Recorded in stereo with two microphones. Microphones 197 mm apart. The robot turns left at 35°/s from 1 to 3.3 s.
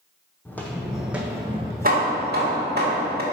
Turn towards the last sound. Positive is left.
turn(degrees=-115)